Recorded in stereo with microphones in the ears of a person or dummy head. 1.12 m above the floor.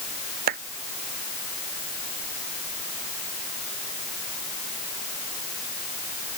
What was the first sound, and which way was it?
A clap, 50° right (ahead or behind).